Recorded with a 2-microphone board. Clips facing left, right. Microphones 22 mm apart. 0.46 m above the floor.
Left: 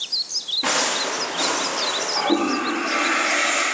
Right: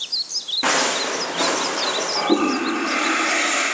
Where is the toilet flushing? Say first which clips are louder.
Right 2 dB; 30° right (ahead or behind), 3 m.